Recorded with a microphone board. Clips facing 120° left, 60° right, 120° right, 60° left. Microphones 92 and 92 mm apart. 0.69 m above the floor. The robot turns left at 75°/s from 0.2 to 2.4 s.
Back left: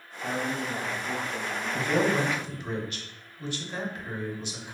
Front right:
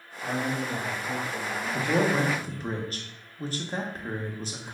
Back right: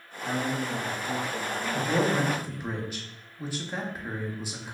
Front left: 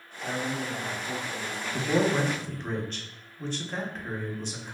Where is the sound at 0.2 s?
50° right, 1.7 m; by 2.7 s 145° left, 1.7 m.